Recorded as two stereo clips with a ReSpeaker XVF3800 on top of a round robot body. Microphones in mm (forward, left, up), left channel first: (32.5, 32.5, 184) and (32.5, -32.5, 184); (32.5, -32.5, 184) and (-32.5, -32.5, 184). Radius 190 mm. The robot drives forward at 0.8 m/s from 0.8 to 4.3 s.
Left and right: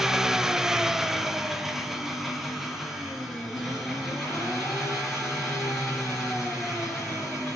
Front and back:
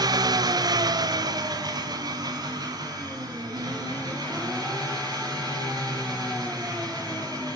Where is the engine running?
175° right, 0.8 m; by 7.6 s straight behind, 3.5 m.